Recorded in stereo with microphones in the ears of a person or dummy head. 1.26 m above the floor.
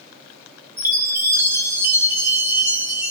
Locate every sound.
0.8 s a chime: 15° right (ahead or behind), 0.7 m